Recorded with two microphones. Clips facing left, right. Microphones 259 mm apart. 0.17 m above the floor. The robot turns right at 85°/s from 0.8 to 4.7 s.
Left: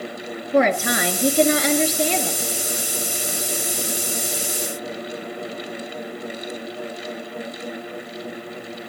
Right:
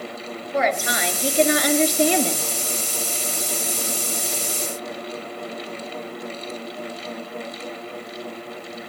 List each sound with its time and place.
0.5 s a woman speaking: 80° left, 2.5 m; by 2.5 s 140° right, 2.5 m